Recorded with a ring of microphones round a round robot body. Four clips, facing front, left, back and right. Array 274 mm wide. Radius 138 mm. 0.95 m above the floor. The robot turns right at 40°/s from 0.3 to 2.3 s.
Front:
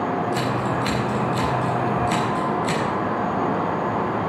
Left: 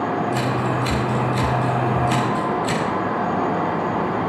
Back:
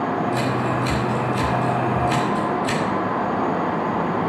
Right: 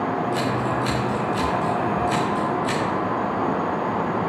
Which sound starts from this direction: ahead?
Scissors, at 0.3 s.